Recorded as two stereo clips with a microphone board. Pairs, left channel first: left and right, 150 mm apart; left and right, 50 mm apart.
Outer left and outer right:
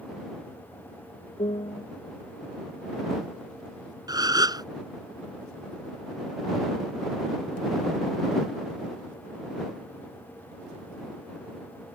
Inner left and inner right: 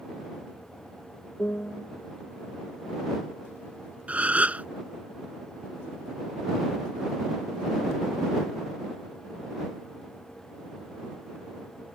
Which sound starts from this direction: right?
A gasp, at 4.1 s.